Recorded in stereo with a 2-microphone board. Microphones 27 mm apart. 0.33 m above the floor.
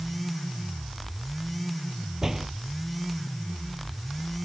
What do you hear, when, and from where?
2.2 s a door slam: 15° right (ahead or behind)